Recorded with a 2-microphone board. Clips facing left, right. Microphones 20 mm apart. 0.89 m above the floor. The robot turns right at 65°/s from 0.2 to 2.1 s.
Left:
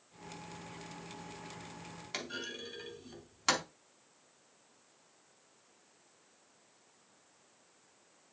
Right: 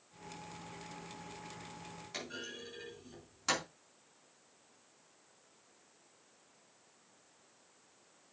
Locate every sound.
2.1 s a clunk: 35° left (ahead or behind), 3.5 m